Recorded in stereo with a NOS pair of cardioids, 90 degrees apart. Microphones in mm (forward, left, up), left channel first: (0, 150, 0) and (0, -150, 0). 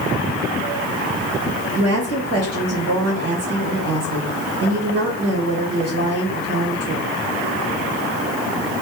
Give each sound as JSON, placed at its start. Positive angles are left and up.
{"t": 1.8, "sound": "a woman speaking", "azimuth_deg": -60, "distance_m": 2.0}